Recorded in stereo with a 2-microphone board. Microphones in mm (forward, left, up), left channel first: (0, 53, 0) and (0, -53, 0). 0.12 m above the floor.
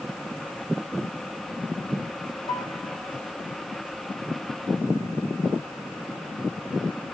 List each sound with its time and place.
2.5 s a piano: 55° left (ahead or behind), 7 m